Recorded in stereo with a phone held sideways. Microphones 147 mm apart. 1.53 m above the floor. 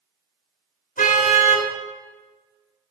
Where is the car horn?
75° left (ahead or behind), 3.5 m.